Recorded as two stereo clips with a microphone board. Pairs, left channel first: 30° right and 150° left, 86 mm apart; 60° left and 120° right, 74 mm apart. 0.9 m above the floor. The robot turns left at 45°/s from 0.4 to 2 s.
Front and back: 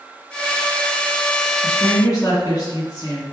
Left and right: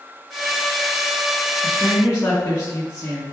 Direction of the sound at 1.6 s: 20° left.